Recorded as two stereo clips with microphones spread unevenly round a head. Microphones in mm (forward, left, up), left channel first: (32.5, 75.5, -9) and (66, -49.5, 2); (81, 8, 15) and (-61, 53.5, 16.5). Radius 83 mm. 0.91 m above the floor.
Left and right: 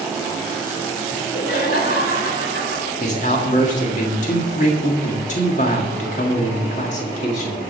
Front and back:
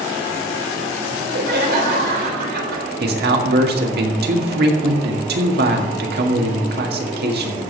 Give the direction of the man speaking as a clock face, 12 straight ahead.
7 o'clock.